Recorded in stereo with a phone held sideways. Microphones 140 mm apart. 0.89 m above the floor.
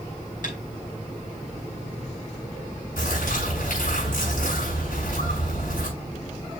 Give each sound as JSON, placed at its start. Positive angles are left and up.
{"t": 0.4, "sound": "tapping", "side_deg": 70, "distance_m": 5.5}
{"t": 3.0, "sound": "a bird", "side_deg": 75, "distance_m": 6.0}